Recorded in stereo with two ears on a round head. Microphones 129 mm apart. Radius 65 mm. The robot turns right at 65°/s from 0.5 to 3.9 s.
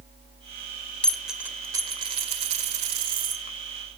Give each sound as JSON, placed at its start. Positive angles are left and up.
{"t": 1.0, "sound": "a dropped coin", "azimuth_deg": 170, "distance_m": 1.7}